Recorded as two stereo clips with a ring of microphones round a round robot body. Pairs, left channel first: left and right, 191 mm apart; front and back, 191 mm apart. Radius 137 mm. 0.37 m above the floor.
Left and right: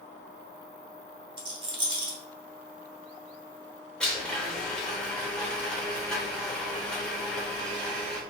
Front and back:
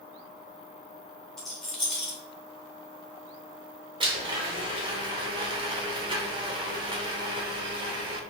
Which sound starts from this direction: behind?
A blender, at 4.0 s.